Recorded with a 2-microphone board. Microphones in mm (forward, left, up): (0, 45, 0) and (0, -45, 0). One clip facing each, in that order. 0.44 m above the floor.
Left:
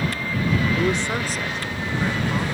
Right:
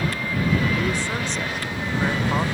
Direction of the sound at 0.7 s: 30° left (ahead or behind).